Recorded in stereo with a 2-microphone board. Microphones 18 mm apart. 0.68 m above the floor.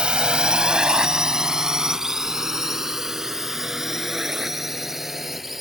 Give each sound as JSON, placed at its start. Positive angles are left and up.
{"t": 0.0, "sound": "a drone", "side_deg": -70}